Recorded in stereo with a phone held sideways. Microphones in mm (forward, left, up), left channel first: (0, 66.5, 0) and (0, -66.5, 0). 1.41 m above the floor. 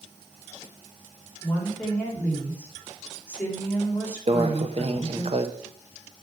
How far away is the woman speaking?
About 4.5 m.